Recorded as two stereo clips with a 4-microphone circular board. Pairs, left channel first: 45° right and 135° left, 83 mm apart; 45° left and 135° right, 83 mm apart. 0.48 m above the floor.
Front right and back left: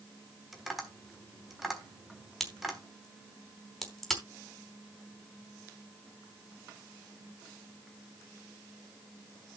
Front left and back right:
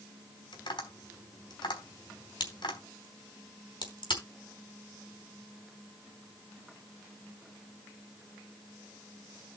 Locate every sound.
0.5 s tapping: 50° left, 4 m
2.4 s a crack: 45° left, 4 m